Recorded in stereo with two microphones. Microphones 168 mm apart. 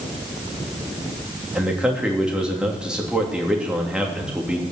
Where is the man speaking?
5° right (ahead or behind), 3 m.